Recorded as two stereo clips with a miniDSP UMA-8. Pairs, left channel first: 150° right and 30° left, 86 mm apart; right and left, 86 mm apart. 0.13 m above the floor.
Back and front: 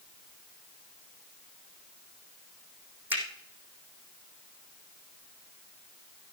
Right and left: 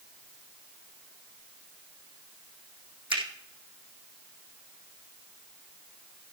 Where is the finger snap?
95° left, 4 m.